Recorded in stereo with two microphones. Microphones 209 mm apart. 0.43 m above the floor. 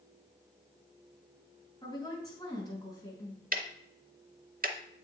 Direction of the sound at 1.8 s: 20° left (ahead or behind).